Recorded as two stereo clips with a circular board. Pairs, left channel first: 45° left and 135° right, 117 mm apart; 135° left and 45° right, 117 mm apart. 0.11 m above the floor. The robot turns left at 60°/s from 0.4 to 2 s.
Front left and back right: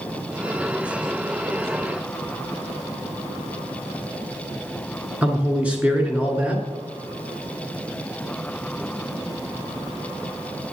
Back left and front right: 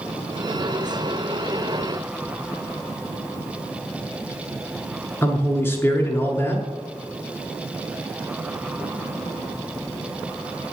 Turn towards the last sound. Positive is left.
turn(degrees=165)